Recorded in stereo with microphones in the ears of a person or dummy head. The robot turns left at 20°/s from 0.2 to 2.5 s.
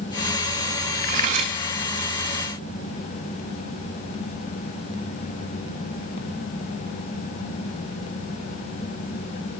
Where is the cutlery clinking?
45° right (ahead or behind), 1.0 m; by 1.6 s 35° right (ahead or behind), 1.0 m.